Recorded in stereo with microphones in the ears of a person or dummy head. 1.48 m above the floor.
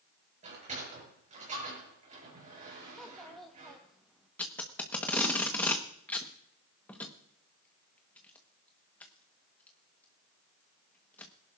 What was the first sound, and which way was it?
A sliding door, 40° right (ahead or behind).